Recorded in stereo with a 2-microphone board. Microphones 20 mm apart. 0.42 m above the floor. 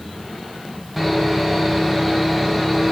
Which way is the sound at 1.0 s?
5° right (ahead or behind).